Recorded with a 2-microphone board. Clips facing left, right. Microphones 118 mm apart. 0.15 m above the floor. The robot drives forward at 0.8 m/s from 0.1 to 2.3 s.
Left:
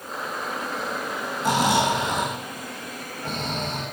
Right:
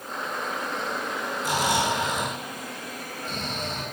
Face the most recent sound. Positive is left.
turn(degrees=60)  # may be behind; listen again after turning